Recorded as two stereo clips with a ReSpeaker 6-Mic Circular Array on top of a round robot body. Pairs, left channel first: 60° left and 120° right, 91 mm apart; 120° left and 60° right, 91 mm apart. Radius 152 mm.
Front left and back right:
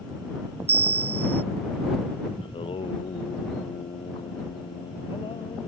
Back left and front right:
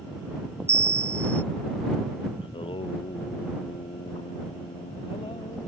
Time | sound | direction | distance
0.7 | a bell | 125° right | ?
2.4 | singing | 90° left | ?